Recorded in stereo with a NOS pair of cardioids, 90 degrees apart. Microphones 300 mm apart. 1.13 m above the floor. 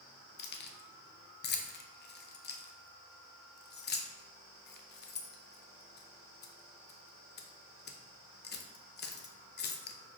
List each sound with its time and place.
0.4 s keys jangling: 35° left, 0.5 m